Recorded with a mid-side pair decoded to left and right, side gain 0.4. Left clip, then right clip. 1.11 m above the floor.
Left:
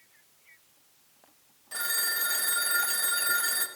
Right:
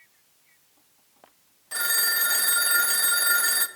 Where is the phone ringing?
40° right, 0.9 m.